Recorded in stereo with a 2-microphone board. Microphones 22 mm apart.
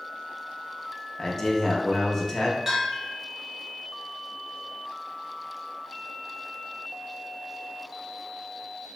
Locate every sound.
1.2 s a man speaking: 15° left (ahead or behind), 0.5 m
2.7 s a bell: 15° right (ahead or behind), 0.9 m